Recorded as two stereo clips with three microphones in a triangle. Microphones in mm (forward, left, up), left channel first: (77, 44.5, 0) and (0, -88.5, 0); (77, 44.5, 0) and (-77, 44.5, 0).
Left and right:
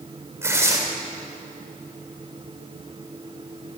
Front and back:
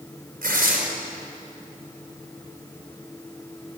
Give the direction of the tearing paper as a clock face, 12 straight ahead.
6 o'clock.